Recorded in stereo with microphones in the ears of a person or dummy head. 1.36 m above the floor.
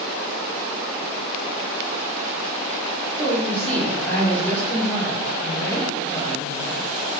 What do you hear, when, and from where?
3.2 s a woman speaking: 5° left (ahead or behind), 4 m